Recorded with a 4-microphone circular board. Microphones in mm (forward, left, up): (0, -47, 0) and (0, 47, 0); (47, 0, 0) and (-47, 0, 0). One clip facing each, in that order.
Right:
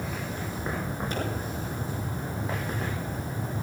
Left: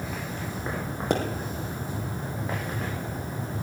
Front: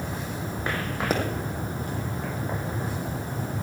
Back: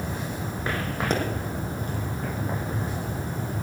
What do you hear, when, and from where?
1.1 s a pop: 85° left, 3 m